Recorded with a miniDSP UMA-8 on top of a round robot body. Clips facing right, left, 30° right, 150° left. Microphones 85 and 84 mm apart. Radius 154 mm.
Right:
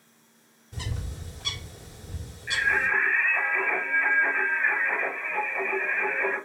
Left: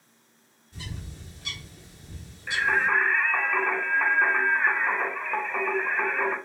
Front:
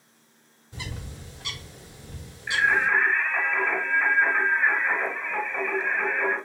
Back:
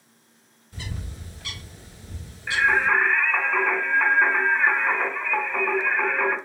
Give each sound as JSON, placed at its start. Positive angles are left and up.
{"t": 0.7, "sound": "a bird", "azimuth_deg": -100, "distance_m": 2.5}
{"t": 2.5, "sound": "singing", "azimuth_deg": 115, "distance_m": 4.0}